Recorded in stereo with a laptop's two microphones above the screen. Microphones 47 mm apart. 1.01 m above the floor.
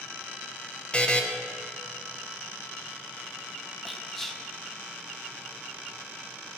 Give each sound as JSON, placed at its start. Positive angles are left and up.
{"t": 0.9, "sound": "a buzzer", "side_deg": 20, "distance_m": 0.6}
{"t": 3.9, "sound": "whispering", "side_deg": 5, "distance_m": 0.5}